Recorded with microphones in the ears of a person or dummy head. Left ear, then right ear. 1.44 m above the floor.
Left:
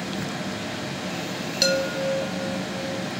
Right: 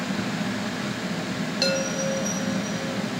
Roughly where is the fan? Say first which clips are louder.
Right 1 dB; right.